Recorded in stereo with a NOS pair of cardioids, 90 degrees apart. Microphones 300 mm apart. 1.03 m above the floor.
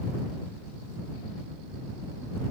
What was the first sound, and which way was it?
Only background noise.